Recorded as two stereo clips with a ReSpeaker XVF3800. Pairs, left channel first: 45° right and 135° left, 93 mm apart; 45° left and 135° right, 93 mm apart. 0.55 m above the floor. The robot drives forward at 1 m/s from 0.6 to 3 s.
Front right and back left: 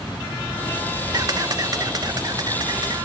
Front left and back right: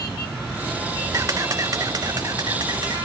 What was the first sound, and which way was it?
A camera shutter, 175° left.